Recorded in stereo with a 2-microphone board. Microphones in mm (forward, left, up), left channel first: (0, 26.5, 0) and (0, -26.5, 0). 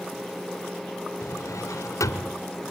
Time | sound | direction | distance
1.2 | a drawer | 80° left | 2.5 m